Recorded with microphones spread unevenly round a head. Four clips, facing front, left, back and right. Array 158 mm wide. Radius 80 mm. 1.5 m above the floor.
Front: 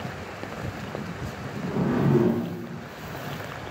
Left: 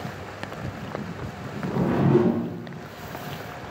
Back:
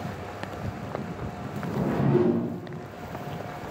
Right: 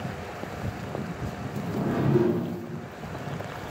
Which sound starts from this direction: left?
A whoosh, at 1.6 s.